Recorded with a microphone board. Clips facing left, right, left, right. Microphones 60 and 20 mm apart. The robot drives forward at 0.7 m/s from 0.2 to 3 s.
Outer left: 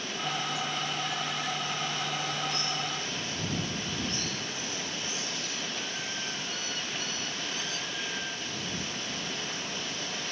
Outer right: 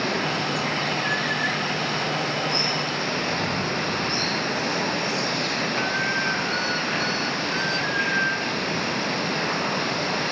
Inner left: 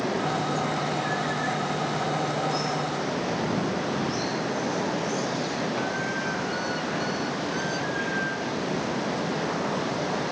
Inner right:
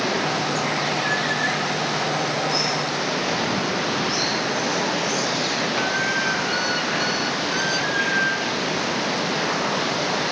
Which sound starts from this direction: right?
Running water, at 0.0 s.